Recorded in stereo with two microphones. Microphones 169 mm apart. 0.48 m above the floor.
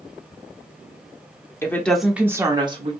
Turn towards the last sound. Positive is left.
turn(degrees=-35)  # may be behind; listen again after turning